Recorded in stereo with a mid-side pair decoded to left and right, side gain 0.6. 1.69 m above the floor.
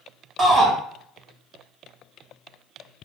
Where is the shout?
20° right, 2 m.